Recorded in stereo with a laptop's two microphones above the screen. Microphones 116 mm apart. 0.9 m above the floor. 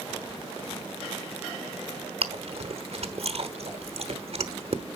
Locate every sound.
2.2 s chewing: 55° right (ahead or behind), 1.0 m